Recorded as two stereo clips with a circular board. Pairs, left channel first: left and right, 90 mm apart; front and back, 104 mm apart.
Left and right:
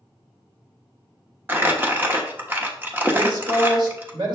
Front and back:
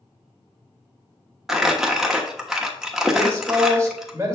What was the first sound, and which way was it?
Crumpling, 105° right.